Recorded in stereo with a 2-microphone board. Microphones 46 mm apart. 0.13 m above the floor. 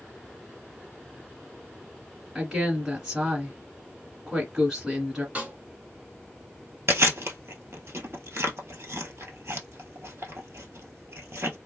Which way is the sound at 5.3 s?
30° right (ahead or behind).